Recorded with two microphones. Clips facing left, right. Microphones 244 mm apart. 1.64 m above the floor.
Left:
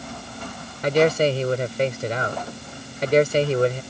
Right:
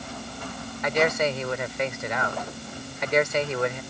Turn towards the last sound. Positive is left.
turn(degrees=35)  # may be behind; listen again after turning